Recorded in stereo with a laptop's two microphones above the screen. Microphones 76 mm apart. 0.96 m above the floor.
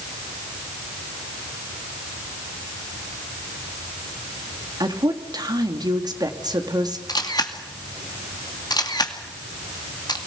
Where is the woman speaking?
65° right (ahead or behind), 2.0 m.